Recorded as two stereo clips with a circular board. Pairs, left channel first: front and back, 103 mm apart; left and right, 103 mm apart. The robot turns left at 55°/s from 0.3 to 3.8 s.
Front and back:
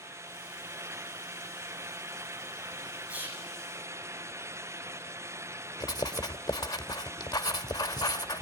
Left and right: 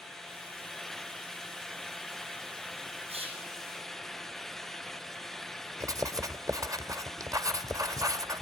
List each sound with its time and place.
3.1 s whispering: 100° right, 8 m; by 3.5 s 125° right, 8 m
5.8 s writing: 40° right, 1.5 m